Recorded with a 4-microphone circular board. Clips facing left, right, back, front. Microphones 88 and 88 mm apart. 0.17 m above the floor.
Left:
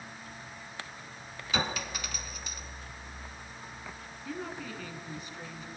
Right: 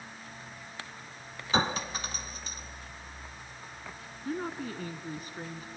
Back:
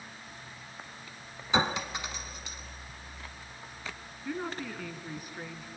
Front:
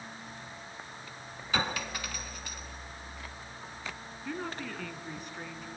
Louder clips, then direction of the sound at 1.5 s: Right 4 dB, back 4 dB; 125° right.